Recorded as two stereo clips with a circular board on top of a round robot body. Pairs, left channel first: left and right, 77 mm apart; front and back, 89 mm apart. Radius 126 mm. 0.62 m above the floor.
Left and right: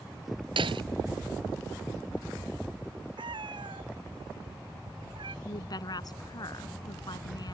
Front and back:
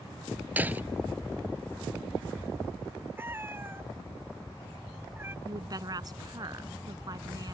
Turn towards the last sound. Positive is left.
turn(degrees=130)